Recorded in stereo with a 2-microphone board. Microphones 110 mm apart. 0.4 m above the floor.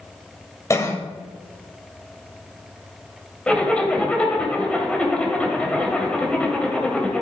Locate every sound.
0.7 s a cough: 30° left (ahead or behind), 2 m
3.5 s a zipper: 10° left (ahead or behind), 2.5 m